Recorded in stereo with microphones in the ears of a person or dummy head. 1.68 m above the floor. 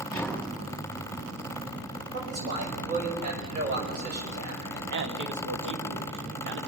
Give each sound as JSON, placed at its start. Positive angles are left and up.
{"t": 0.1, "sound": "tapping", "side_deg": 5, "distance_m": 4.5}
{"t": 2.1, "sound": "a man speaking", "side_deg": -45, "distance_m": 6.0}
{"t": 4.9, "sound": "a man speaking", "side_deg": -65, "distance_m": 1.5}